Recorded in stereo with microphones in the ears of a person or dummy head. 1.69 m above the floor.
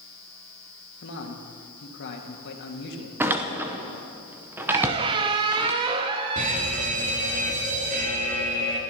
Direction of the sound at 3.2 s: 15° right (ahead or behind).